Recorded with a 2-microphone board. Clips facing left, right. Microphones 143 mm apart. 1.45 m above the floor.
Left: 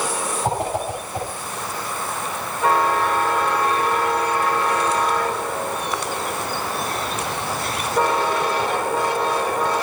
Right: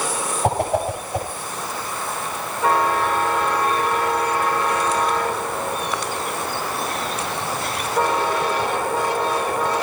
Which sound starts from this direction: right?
A whoosh, at 0.4 s.